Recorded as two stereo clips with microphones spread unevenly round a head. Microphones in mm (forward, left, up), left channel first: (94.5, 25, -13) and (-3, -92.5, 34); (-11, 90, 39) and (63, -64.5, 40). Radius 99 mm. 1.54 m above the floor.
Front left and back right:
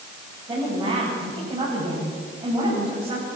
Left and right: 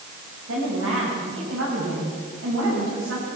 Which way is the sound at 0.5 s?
65° right.